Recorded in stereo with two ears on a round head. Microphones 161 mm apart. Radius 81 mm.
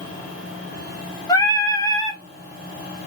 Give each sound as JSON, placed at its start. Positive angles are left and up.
{"t": 1.3, "sound": "singing", "side_deg": 20, "distance_m": 0.6}